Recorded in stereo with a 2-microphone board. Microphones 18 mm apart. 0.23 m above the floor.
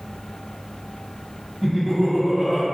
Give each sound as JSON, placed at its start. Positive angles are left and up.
{"t": 1.6, "sound": "laughter", "side_deg": -40, "distance_m": 1.4}